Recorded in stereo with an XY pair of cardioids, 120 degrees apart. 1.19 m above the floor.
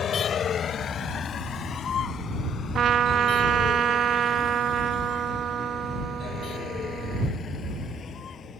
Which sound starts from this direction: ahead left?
A vehicle, at 0.0 s.